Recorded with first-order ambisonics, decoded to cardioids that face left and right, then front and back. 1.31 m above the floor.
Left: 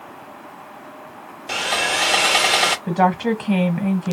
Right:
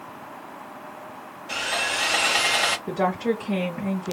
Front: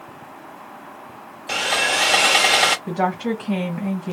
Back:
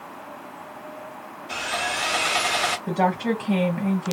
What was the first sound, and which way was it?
Sawing, 35° left.